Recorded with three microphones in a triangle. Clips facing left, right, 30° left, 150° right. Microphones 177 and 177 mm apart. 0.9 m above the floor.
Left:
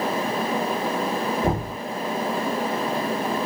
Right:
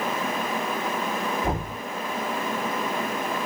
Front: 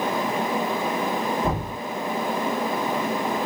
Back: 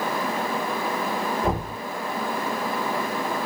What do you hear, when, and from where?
1.4 s knocking: 115° left, 1.4 m